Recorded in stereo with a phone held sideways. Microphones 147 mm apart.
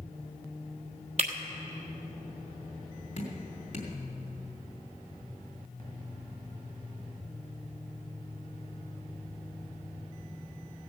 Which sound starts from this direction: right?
Breaking glass, at 1.2 s.